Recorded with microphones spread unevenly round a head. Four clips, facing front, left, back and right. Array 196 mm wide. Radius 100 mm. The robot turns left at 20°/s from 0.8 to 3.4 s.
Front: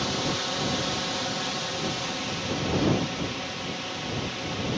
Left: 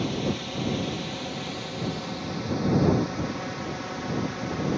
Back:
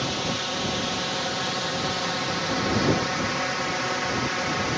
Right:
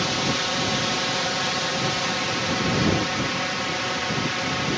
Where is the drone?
95° right; by 4.8 s 145° right.